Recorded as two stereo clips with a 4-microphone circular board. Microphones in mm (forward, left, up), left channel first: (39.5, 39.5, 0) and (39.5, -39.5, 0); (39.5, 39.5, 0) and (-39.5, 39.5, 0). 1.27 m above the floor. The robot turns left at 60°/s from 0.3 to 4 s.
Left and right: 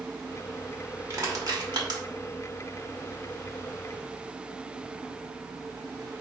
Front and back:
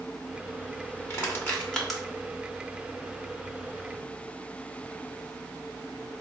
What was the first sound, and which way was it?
Crushing, 45° right.